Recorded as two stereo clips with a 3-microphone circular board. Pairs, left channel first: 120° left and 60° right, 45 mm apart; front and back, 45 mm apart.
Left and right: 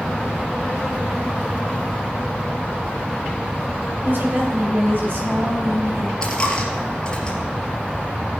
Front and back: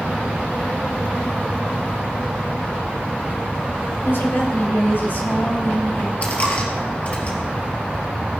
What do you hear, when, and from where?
4.0 s a woman speaking: 25° right, 3.5 m; by 6.1 s 35° right, 4.5 m
6.2 s a dropped coin: 50° left, 2.5 m